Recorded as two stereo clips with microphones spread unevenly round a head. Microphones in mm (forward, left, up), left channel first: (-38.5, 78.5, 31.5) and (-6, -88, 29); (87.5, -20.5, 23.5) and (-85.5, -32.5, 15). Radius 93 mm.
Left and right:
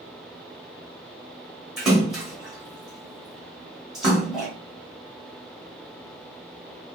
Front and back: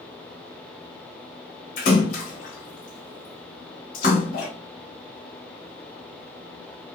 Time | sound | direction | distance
1.8 | a splash | 10° left | 0.9 m